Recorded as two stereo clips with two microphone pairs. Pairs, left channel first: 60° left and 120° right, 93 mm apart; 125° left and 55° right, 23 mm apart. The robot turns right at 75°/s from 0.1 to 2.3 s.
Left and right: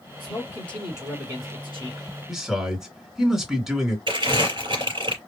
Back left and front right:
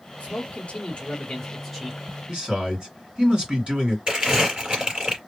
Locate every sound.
0.2 s a man speaking: 100° left, 3.5 m; by 2.0 s 125° right, 3.5 m
2.3 s a man speaking: 35° right, 1.9 m
4.1 s crumpling: 100° right, 3.5 m